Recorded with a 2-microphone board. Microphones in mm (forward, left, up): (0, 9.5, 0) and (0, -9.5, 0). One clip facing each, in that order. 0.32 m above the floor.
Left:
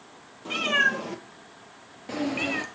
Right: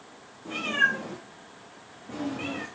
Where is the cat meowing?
50° left (ahead or behind), 2.5 m; by 2.6 s 85° left, 1.6 m.